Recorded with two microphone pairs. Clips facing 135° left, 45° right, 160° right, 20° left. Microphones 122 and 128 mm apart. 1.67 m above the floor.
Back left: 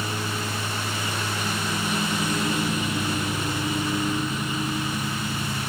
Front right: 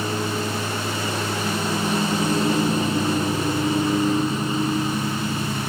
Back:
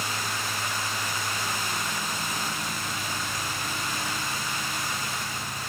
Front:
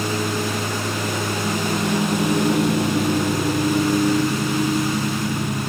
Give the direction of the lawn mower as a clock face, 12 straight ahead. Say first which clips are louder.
Front right 5 dB, front 10 dB; 12 o'clock.